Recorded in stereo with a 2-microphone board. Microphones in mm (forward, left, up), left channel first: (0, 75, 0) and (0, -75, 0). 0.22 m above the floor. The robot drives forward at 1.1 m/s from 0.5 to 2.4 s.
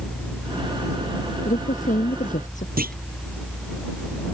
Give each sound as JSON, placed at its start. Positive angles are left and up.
{"t": 1.4, "sound": "a woman speaking", "side_deg": 60}
{"t": 2.8, "sound": "a clunk", "side_deg": -80}